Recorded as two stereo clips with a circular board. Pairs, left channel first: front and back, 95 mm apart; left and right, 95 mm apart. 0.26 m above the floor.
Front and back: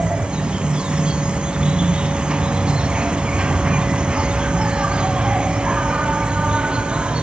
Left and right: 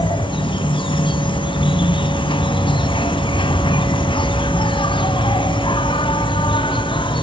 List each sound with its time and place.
0.0 s an insect: 100° left, 0.8 m